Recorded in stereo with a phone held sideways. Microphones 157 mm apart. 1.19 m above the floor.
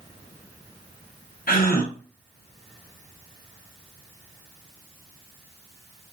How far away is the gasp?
About 0.6 m.